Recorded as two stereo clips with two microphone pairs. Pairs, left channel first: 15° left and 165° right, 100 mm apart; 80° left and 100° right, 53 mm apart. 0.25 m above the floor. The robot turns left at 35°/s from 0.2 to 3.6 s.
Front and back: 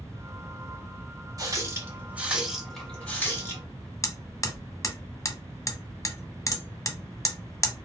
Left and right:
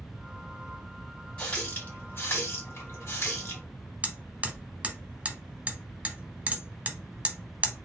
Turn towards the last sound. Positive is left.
turn(degrees=-35)